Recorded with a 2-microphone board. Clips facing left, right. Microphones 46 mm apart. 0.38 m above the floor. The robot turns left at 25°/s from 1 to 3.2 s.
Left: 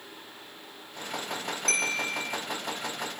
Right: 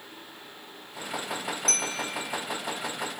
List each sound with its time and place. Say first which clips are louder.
1.7 s a bell: left 6 dB; 40° left (ahead or behind), 3.5 m; by 2.4 s 25° left (ahead or behind), 3.5 m